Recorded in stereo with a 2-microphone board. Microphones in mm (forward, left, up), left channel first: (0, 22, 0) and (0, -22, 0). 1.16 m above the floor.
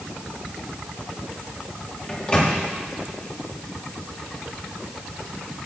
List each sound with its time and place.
2.1 s a microwave: 25° left (ahead or behind), 1.8 m